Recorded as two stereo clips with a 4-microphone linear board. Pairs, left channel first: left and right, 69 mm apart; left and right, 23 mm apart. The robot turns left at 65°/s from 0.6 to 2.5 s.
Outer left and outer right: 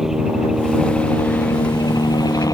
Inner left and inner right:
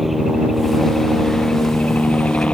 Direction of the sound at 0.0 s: 175° right.